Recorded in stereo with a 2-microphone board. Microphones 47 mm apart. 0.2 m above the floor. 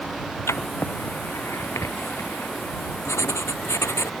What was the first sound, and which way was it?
Writing, 80° left.